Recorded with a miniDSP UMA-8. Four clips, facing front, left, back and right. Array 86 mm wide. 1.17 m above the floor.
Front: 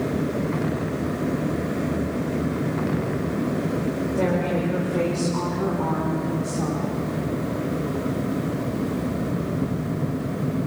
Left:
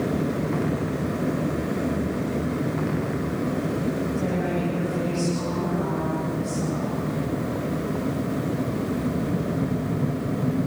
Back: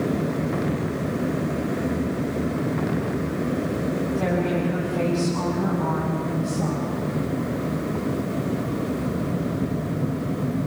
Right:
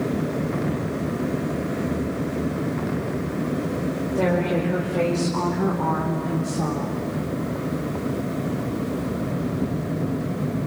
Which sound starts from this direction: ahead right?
A woman speaking, at 4.2 s.